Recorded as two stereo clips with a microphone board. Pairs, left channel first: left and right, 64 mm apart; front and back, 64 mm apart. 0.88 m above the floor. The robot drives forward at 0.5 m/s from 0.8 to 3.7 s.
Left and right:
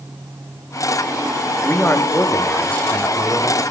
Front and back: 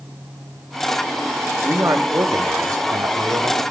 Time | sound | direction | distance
1.6 | a man speaking | 140° left | 1.2 m